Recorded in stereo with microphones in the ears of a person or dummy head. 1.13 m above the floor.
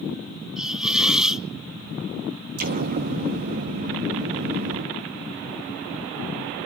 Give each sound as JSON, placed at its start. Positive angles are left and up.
{"t": 0.6, "sound": "a hiss", "side_deg": 0, "distance_m": 0.6}
{"t": 2.6, "sound": "an explosion", "side_deg": -50, "distance_m": 1.2}